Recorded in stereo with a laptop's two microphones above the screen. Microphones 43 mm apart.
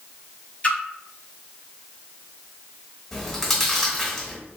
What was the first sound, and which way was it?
A splash, 30° left (ahead or behind).